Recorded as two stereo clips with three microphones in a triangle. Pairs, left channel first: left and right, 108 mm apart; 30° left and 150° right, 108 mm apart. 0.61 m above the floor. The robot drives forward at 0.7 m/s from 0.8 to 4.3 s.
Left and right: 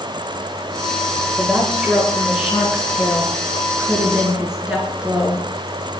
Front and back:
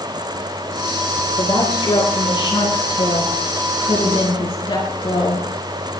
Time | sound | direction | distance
1.4 | a woman speaking | 5° right | 8.5 m